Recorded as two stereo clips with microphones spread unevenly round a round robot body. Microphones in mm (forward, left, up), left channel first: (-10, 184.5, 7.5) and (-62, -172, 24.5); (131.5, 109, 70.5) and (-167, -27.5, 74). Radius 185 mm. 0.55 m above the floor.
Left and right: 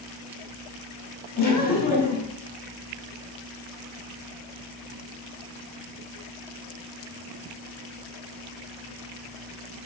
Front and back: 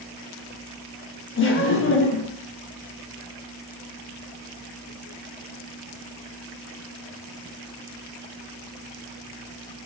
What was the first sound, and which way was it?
Laughter, 40° left.